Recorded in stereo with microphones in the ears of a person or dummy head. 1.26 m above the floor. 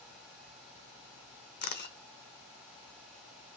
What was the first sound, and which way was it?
A camera shutter, 55° left (ahead or behind).